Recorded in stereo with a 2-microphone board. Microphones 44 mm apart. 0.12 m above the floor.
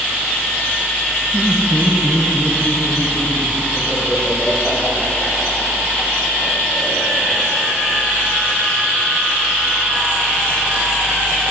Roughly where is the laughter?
Right.